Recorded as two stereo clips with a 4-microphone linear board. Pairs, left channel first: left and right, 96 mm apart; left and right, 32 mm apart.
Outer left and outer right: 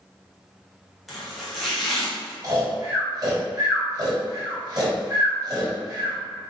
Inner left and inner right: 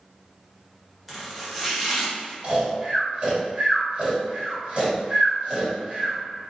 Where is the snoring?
40° right (ahead or behind), 1.5 m.